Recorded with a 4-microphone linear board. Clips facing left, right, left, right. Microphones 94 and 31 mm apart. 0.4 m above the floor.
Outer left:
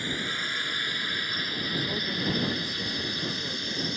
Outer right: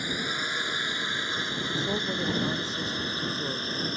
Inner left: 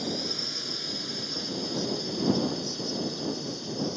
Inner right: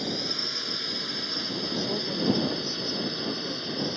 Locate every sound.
0.0 s a drone: 20° right (ahead or behind); by 4.0 s 40° right (ahead or behind)
1.7 s a woman speaking: 25° right (ahead or behind)